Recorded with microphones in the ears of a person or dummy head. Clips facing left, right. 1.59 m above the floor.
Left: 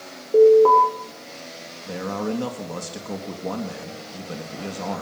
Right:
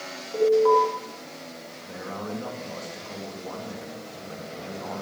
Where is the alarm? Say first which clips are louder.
Left 7 dB; 85° left, 6.5 m.